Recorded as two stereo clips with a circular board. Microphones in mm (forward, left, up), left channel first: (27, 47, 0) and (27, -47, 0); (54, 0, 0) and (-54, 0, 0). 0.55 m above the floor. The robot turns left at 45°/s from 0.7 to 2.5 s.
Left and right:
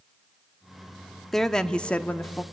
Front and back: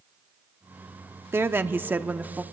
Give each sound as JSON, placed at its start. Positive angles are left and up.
{"t": 1.3, "sound": "a woman speaking", "azimuth_deg": 170, "distance_m": 0.8}